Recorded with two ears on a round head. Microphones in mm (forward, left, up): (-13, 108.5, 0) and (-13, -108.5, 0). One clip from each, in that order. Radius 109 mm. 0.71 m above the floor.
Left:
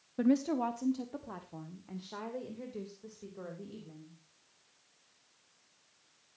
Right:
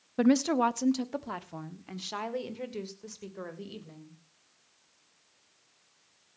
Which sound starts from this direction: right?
A woman speaking, at 0.2 s.